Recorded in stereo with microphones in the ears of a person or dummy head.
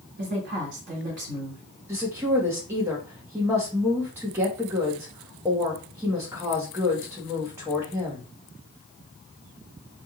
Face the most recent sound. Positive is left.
turn(degrees=-10)  # may be behind; listen again after turning